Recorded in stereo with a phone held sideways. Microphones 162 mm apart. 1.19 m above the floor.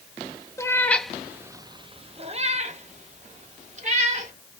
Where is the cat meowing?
20° left (ahead or behind), 0.7 m; by 4.3 s 40° right (ahead or behind), 1.8 m.